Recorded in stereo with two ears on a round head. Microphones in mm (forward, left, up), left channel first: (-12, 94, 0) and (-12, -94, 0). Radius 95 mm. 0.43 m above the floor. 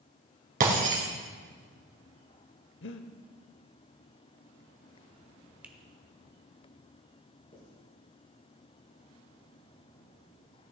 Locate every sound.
0.6 s breaking glass: 40° right (ahead or behind), 2.5 m
2.8 s breathing: 60° left (ahead or behind), 0.8 m
5.6 s a finger snap: 5° right (ahead or behind), 0.9 m
7.5 s writing: 30° left (ahead or behind), 5 m